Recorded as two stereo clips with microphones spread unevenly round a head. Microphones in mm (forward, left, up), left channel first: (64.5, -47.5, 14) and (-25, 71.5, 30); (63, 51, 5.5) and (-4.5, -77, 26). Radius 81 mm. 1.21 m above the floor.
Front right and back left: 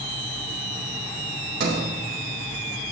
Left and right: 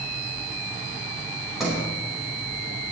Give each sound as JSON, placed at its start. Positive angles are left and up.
{"t": 1.6, "sound": "a sliding door", "azimuth_deg": 155, "distance_m": 4.5}